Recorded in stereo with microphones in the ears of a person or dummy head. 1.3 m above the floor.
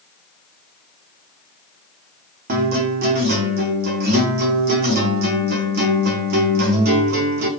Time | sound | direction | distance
2.5 | a guitar | 45° right (ahead or behind) | 0.7 m